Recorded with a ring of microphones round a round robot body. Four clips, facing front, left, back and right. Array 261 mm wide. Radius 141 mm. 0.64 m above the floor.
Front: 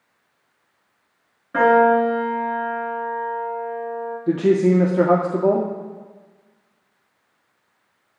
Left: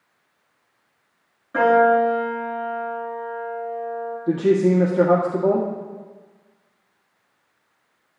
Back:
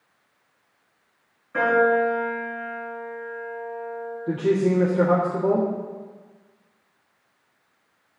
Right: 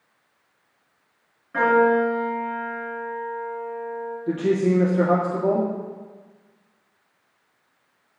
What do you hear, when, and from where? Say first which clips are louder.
1.5 s a piano: left 3 dB, front 5 dB; 10° left, 6.5 m
4.3 s a woman speaking: left 3 dB, front 5 dB; 10° left, 1.8 m